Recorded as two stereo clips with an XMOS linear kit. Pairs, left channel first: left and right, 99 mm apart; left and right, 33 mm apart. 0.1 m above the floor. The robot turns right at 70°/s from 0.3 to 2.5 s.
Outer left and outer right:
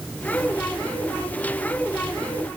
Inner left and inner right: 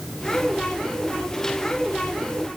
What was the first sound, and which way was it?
Only background noise.